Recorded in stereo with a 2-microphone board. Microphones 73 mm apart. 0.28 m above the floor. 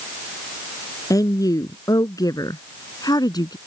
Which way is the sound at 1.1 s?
55° left (ahead or behind).